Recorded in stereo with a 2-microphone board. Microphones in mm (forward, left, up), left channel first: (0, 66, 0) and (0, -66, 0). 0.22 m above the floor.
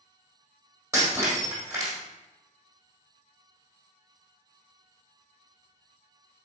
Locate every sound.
0.9 s breaking glass: 20° right (ahead or behind), 3 m